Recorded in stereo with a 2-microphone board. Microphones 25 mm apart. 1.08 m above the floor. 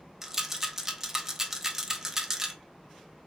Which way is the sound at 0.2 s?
20° right (ahead or behind).